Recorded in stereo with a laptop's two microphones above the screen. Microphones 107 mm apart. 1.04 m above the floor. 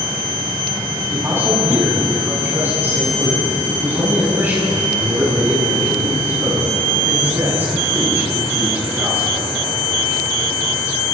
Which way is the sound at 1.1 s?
20° right (ahead or behind).